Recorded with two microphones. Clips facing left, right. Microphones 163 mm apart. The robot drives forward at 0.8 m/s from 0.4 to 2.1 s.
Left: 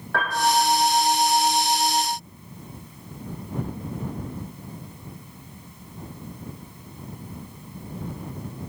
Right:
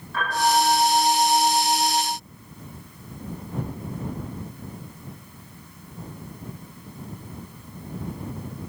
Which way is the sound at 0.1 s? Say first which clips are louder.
Even; 80° left.